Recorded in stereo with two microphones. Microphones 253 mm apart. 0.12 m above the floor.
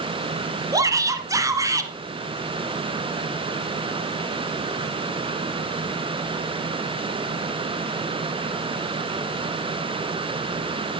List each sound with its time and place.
0.7 s a shout: 15° right (ahead or behind), 1.5 m